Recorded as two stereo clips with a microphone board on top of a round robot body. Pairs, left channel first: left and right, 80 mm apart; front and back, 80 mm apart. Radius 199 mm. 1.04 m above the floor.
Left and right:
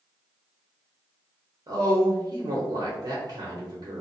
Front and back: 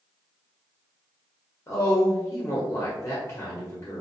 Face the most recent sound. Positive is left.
turn(degrees=-55)